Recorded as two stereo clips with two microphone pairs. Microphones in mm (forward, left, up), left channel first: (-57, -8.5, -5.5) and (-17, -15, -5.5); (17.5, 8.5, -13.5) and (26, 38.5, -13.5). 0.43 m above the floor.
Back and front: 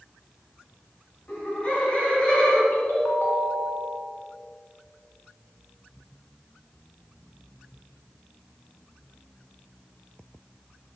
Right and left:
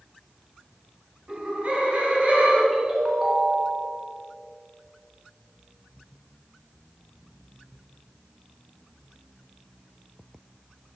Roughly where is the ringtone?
Behind left.